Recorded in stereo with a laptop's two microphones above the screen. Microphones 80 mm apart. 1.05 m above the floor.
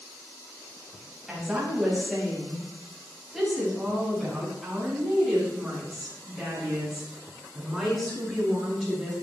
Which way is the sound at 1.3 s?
5° right (ahead or behind).